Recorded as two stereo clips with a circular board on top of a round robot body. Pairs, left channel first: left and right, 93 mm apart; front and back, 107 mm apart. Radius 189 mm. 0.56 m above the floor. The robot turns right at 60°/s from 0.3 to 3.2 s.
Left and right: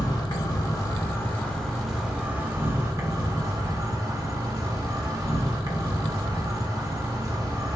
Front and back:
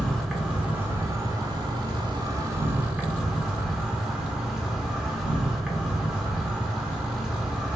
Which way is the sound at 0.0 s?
85° left.